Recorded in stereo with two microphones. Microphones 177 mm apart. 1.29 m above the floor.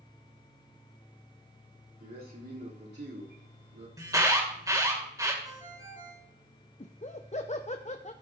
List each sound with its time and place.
2.0 s a man speaking: 55° right (ahead or behind), 3.5 m; by 3.9 s 85° right, 3.5 m
4.0 s an alarm: 20° right (ahead or behind), 2 m
5.4 s a ringtone: 20° right (ahead or behind), 4.5 m
6.8 s laughter: 40° left (ahead or behind), 0.5 m